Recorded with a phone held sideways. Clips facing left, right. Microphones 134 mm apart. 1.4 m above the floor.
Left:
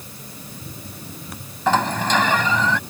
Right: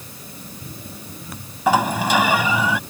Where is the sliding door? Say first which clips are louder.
Right 2 dB; 10° right (ahead or behind).